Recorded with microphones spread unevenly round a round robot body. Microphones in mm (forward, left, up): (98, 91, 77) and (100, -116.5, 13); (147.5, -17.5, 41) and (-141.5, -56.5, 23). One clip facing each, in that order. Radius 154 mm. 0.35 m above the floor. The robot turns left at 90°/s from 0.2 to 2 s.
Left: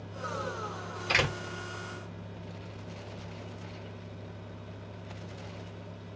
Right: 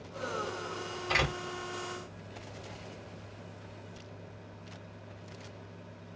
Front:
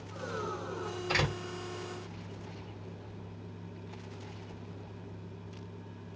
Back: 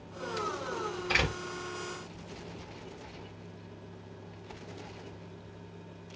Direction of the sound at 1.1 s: 95° left.